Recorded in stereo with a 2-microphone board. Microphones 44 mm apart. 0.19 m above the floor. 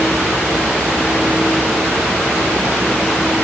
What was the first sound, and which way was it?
Only background noise.